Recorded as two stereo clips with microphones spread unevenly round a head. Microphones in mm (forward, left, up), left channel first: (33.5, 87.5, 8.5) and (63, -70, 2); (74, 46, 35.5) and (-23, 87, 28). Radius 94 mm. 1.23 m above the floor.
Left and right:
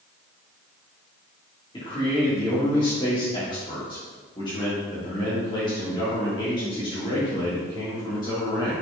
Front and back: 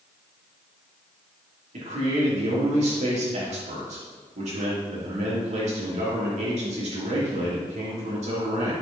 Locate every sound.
1.7 s a man speaking: 170° left, 2.5 m